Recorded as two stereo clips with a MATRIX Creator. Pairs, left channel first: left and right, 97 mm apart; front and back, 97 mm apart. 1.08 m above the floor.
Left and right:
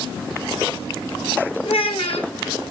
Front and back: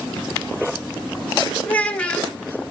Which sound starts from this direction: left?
A child speaking, at 1.6 s.